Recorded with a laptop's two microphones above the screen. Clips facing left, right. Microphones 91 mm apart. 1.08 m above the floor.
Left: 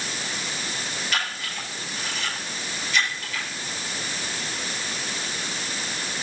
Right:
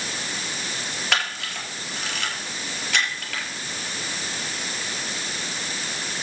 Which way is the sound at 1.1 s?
80° right.